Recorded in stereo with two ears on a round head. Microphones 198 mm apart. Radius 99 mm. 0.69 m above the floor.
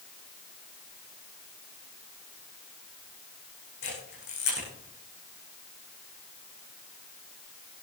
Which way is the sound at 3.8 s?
50° left (ahead or behind).